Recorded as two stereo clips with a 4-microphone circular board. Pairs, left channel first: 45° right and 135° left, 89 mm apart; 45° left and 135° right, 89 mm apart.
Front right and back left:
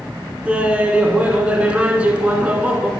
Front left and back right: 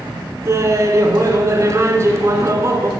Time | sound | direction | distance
0.5 | laughter | 160° right | 1.5 m